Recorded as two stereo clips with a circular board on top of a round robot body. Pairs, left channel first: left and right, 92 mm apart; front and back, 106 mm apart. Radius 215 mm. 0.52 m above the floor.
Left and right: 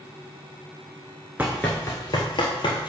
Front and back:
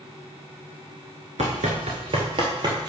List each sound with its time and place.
1.4 s running footsteps: 165° right, 0.5 m; by 2.9 s 130° left, 1.4 m